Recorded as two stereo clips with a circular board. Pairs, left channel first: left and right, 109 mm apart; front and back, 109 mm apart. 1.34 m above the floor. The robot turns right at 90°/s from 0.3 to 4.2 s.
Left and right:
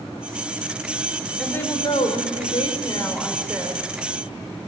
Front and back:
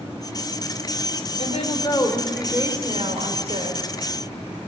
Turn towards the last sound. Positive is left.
turn(degrees=-105)